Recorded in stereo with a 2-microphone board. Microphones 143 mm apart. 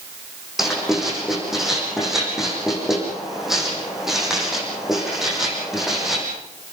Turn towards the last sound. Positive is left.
turn(degrees=0)  # may be behind; listen again after turning